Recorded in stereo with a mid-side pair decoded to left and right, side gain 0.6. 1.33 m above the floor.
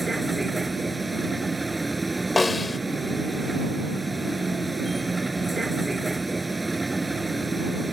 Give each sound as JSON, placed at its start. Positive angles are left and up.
{"t": 0.0, "sound": "a vehicle", "azimuth_deg": -10}
{"t": 2.4, "sound": "a snare drum", "azimuth_deg": 20}